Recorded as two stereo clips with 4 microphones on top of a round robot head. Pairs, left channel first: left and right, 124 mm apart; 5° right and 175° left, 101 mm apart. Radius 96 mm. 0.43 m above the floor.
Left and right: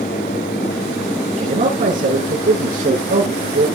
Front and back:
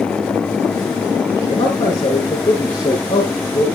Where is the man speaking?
65° right, 6.5 m.